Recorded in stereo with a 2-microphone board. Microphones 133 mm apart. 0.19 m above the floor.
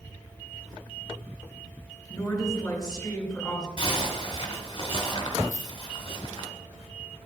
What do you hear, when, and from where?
2.1 s a woman speaking: 5° left (ahead or behind), 2 m
3.8 s a zipper: 35° left (ahead or behind), 1.1 m
5.5 s a dropped coin: 70° left (ahead or behind), 0.5 m